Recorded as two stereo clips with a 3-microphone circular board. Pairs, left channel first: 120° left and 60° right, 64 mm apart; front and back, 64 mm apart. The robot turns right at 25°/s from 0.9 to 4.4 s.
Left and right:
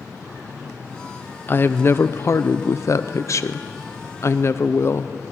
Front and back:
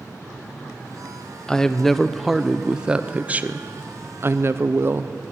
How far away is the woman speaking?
About 0.6 m.